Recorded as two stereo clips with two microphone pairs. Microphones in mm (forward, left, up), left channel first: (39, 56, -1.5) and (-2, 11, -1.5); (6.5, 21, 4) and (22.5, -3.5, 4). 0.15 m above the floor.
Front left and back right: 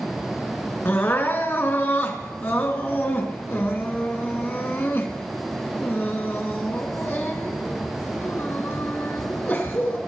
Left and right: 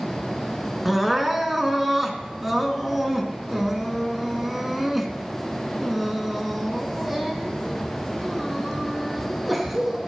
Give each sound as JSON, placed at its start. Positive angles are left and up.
{"t": 0.8, "sound": "crying", "azimuth_deg": 25, "distance_m": 2.0}